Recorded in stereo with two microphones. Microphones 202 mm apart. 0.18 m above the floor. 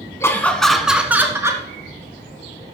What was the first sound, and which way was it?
Laughter, 15° left (ahead or behind).